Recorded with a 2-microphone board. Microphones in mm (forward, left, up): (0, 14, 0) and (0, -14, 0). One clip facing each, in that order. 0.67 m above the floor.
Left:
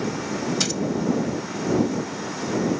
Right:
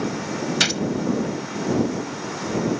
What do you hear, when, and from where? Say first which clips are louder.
0.6 s a gunshot: right 5 dB; 45° right (ahead or behind)